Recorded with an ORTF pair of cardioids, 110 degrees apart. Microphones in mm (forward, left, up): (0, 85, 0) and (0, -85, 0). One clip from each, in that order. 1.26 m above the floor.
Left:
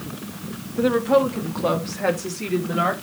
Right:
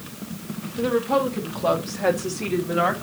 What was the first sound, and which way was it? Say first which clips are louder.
A woman speaking: left 3 dB; 20° left.